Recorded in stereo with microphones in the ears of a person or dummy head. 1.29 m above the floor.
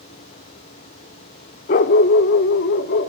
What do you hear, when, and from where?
1.7 s a dog barking: 35° left (ahead or behind), 0.9 m; by 3.1 s 55° left (ahead or behind), 1.9 m